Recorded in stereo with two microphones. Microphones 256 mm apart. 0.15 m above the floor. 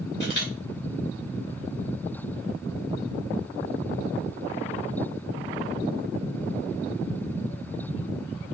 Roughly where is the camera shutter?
Left.